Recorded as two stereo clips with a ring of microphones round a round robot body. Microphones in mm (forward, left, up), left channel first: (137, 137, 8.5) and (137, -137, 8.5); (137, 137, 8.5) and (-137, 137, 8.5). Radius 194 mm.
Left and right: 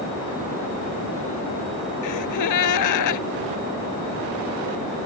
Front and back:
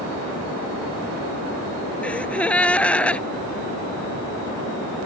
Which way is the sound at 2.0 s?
85° left.